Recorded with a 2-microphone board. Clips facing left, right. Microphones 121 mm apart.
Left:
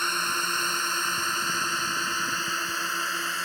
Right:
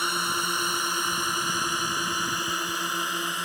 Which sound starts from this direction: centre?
A drone, at 0.0 s.